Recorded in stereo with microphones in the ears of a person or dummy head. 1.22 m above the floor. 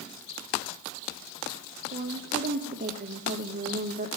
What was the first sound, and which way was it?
A woman speaking, 45° right (ahead or behind).